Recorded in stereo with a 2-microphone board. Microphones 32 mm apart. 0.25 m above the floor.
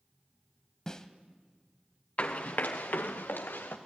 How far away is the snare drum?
About 1.1 m.